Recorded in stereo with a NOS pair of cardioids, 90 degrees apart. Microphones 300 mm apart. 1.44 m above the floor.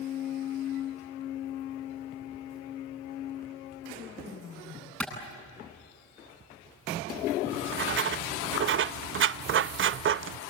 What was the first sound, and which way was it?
A clap, 5° left.